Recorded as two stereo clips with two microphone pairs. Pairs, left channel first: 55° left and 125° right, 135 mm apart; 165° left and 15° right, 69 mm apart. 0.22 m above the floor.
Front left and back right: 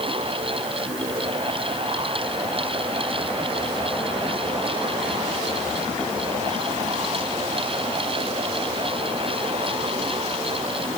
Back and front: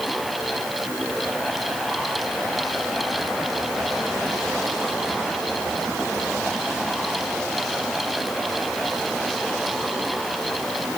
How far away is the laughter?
I don't hear laughter.